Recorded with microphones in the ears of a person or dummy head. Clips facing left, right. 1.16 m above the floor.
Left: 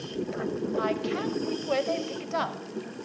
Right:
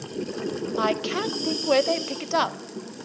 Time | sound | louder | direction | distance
0.8 | a woman speaking | right 4 dB | 65° right (ahead or behind) | 0.6 m